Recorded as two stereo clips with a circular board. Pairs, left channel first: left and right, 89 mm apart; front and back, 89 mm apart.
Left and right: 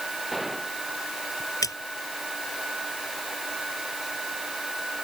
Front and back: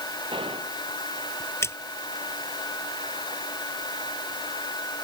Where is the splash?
55° left.